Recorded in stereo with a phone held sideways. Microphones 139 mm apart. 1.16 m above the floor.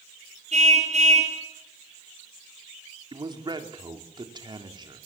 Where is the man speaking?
35° right (ahead or behind), 3.5 m.